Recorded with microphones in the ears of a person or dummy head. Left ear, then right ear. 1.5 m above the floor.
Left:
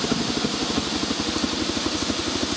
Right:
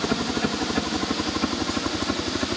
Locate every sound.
0.0 s a helicopter: 45° right (ahead or behind); by 2.6 s 35° right (ahead or behind)